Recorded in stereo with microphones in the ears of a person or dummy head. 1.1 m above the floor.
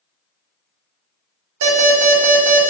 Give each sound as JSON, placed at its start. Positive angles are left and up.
{"t": 1.6, "sound": "an alarm", "side_deg": -75, "distance_m": 1.1}